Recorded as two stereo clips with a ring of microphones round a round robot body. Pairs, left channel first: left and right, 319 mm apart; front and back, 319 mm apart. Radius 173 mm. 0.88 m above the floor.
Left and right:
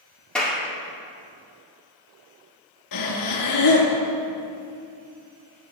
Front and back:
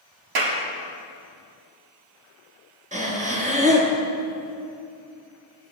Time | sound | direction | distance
0.3 | a clap | 175° left | 1.8 m
2.9 | breathing | 115° left | 2.0 m